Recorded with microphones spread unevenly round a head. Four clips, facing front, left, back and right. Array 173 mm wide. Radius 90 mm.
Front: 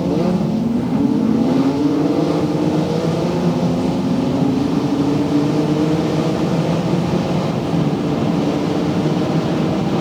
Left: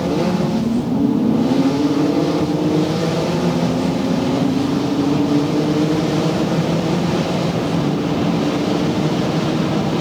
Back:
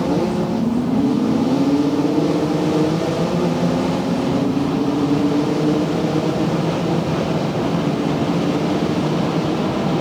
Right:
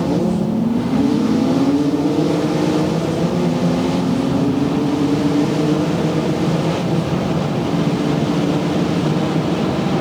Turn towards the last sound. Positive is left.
No sound to turn to.